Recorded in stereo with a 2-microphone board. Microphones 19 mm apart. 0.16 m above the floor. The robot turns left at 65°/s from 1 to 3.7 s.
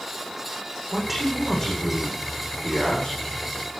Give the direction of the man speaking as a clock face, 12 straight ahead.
6 o'clock.